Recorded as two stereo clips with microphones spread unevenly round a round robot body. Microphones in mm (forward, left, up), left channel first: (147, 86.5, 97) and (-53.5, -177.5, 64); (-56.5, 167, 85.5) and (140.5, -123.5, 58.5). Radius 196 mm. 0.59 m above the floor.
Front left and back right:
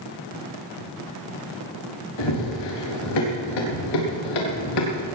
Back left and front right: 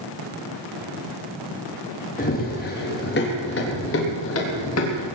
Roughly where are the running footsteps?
Ahead left.